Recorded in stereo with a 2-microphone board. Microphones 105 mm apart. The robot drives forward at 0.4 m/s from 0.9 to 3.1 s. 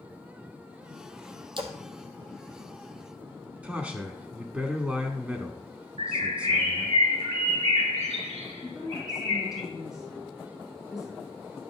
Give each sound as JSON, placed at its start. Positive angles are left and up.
{"t": 1.6, "sound": "a splash", "side_deg": -50, "distance_m": 1.3}
{"t": 3.6, "sound": "a man speaking", "side_deg": -15, "distance_m": 1.0}
{"t": 6.0, "sound": "a bird", "side_deg": -85, "distance_m": 1.6}
{"t": 8.6, "sound": "a woman speaking", "side_deg": -5, "distance_m": 3.5}